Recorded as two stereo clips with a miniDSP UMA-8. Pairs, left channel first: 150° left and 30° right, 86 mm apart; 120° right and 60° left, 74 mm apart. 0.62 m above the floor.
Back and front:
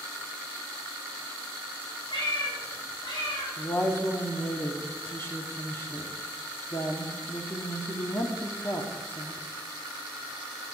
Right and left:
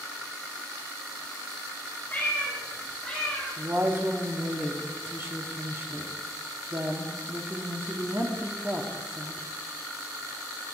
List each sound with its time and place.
2.1 s a cat meowing: 175° left, 4 m; by 3.5 s 155° left, 4 m
3.6 s a woman speaking: 105° left, 1.2 m